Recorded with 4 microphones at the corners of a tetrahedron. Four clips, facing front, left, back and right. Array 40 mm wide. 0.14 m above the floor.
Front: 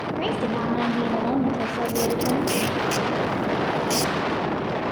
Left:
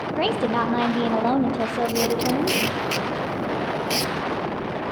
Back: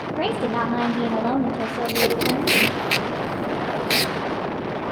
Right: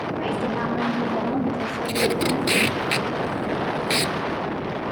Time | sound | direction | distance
0.2 | a woman speaking | 120° left | 4.5 m
1.9 | tape being pulled | 160° right | 0.7 m